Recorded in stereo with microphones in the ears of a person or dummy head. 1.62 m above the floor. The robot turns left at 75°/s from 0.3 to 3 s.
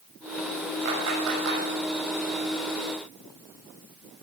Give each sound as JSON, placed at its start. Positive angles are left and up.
{"t": 0.8, "sound": "a clap", "side_deg": -65, "distance_m": 6.0}